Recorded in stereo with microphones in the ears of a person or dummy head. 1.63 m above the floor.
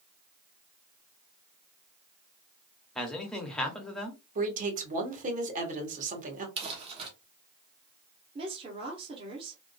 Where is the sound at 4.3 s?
45° right (ahead or behind), 1.5 m.